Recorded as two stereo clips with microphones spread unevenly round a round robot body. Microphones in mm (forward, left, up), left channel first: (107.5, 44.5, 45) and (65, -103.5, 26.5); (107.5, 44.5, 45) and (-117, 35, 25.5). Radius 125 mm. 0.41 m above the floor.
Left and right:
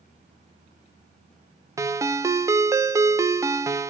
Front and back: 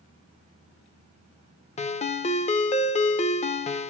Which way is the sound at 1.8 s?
50° right.